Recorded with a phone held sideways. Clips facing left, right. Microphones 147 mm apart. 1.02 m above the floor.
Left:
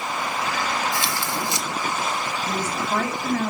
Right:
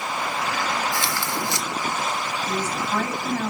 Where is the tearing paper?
20° left (ahead or behind), 2 m.